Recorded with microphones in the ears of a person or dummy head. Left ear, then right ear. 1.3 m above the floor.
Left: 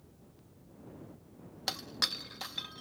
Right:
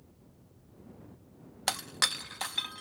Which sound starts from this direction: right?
Breaking glass, at 1.7 s.